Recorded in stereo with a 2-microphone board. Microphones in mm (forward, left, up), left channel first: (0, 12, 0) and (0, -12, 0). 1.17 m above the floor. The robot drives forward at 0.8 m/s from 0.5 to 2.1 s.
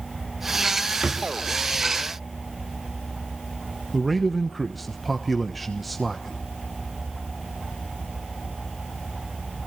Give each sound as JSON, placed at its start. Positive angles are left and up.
{"t": 1.0, "sound": "a drawer", "side_deg": -30, "distance_m": 0.6}
{"t": 3.9, "sound": "a man speaking", "side_deg": 5, "distance_m": 1.1}